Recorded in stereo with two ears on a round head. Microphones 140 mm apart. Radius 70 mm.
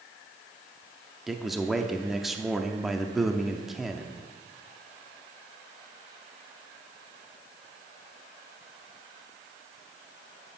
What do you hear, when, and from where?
1.3 s a man speaking: centre (ahead or behind), 0.6 m